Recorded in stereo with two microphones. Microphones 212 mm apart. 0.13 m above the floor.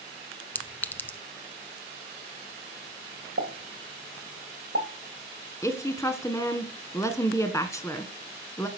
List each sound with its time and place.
0.6 s a clink: 10° left (ahead or behind), 0.7 m
3.4 s a pop: 75° right (ahead or behind), 3 m
5.6 s a woman speaking: 15° left (ahead or behind), 1.3 m